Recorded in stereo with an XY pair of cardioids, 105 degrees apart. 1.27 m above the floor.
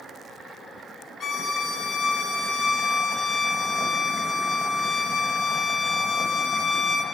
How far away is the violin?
About 1.1 m.